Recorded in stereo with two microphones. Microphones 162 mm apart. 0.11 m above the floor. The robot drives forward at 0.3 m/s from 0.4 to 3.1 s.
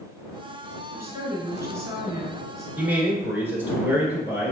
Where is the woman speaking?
20° right (ahead or behind), 1.3 m; by 2.7 s 15° right (ahead or behind), 1.4 m.